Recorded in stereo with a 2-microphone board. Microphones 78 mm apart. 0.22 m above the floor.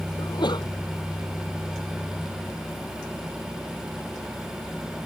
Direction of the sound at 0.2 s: 70° left (ahead or behind).